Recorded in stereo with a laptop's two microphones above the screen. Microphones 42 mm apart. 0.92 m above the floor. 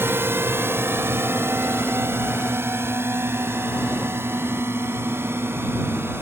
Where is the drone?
70° right (ahead or behind); by 6.2 s 75° right (ahead or behind).